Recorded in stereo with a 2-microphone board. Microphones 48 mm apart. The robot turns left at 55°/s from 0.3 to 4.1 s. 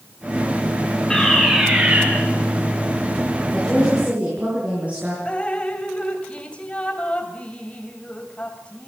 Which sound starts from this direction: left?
Dripping, at 5.2 s.